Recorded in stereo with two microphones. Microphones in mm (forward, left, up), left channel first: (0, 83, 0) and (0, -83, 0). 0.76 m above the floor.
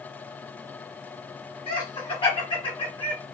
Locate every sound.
1.7 s laughter: 30° left (ahead or behind), 1.6 m